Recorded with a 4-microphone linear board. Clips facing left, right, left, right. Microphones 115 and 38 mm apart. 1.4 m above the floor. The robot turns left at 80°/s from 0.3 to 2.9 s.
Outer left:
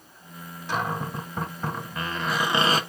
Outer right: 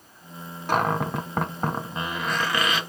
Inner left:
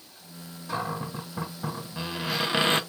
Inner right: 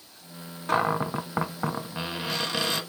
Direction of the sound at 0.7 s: 55° right.